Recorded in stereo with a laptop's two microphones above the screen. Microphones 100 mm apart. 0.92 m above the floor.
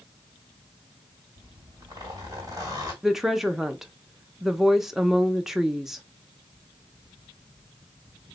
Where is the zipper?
35° right (ahead or behind), 1.8 m.